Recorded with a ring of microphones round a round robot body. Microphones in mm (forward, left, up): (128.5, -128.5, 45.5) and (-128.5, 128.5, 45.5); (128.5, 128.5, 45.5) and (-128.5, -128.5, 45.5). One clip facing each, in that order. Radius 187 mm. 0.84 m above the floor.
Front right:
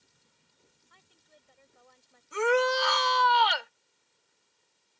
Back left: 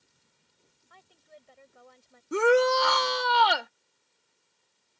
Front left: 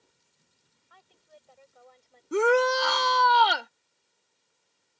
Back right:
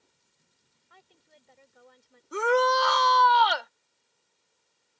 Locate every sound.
0.9 s a woman speaking: 170° left; by 2.2 s 155° left
2.3 s a shout: 100° left